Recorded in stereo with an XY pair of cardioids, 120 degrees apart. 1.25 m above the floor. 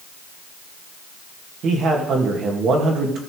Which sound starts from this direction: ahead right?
A man speaking, at 1.6 s.